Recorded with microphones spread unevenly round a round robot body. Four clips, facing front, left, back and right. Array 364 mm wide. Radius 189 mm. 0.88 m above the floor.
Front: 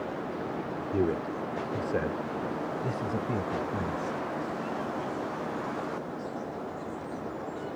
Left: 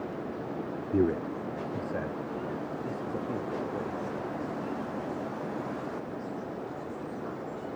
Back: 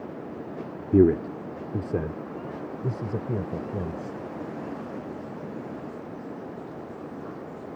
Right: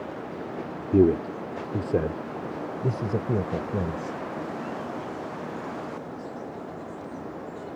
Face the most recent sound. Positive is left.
turn(degrees=-110)